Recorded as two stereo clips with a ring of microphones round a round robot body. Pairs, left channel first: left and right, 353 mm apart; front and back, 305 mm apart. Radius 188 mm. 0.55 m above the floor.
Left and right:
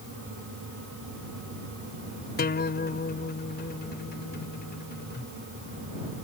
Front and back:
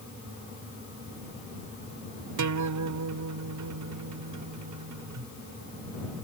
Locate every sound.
2.4 s a guitar: 155° left